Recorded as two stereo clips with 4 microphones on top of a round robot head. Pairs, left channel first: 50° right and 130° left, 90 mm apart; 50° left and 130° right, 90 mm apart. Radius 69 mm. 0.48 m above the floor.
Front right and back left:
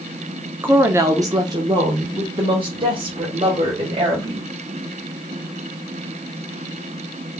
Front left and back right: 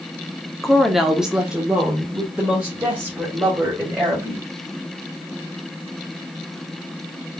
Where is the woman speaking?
140° left, 0.8 m; by 4.5 s 155° left, 3 m.